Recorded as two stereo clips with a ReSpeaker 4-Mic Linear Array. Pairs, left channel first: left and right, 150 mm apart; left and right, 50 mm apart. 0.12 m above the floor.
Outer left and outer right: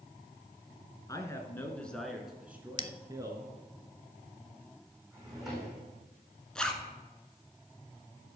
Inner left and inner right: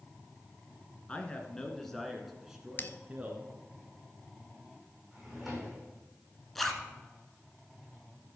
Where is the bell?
40° left (ahead or behind), 0.5 m.